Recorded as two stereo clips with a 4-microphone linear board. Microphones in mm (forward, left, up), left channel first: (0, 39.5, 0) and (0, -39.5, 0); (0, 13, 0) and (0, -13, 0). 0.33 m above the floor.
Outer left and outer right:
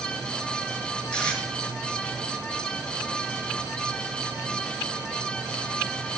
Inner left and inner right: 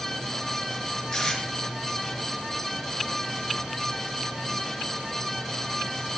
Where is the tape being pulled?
15° left (ahead or behind), 5 m.